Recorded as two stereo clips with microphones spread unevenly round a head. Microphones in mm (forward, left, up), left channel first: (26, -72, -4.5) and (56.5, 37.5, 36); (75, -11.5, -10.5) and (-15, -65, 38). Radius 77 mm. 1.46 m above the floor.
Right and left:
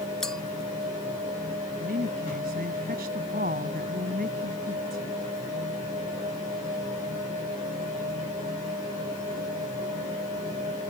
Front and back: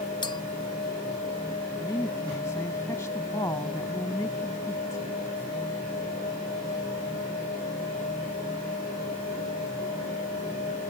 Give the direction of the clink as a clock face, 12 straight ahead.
1 o'clock.